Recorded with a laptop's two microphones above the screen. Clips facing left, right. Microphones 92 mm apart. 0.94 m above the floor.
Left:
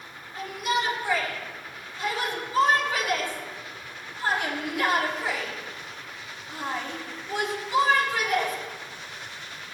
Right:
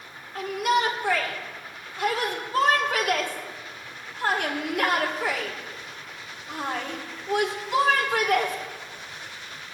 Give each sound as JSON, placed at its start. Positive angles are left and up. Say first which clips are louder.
{"t": 0.3, "sound": "a shout", "louder": "right 4 dB", "side_deg": -55, "distance_m": 3.0}